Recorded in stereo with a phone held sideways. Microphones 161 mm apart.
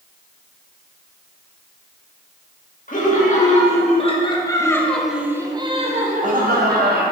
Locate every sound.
2.9 s laughter: 50° left (ahead or behind), 2.5 m; by 7.0 s 65° right (ahead or behind), 1.8 m